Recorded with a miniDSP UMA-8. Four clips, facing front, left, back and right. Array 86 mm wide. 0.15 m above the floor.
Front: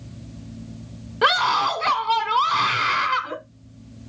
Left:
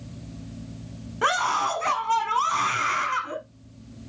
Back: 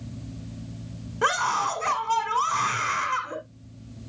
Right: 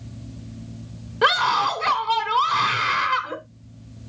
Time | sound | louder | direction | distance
1.2 | a scream | right 4 dB, front 5 dB | 30° right | 1.0 m